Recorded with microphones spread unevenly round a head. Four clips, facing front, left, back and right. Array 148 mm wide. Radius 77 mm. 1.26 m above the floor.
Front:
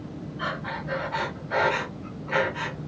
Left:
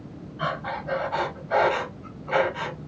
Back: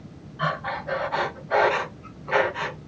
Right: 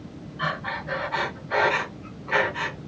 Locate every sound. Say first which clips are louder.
0.4 s breathing: left 1 dB, back 5 dB; 155° left, 1.2 m